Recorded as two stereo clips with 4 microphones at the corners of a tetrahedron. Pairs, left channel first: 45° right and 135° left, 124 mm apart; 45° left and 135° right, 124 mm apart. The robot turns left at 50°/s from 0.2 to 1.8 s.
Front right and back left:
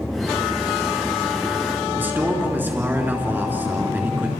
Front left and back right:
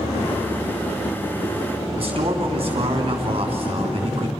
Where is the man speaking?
155° right, 3 m.